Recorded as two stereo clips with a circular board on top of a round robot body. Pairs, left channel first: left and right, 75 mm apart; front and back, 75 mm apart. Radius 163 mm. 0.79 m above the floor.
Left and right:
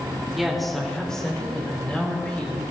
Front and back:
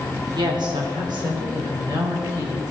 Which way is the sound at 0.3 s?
175° right.